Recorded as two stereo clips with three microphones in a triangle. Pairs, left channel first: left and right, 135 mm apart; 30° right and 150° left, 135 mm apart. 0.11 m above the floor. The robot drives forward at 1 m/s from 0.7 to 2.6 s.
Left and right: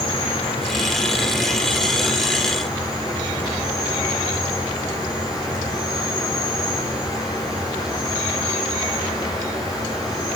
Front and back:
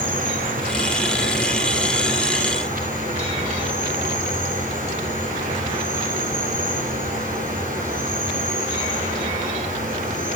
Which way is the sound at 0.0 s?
140° left.